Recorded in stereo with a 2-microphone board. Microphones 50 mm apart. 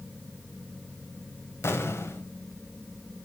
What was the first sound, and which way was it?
An explosion, 60° left (ahead or behind).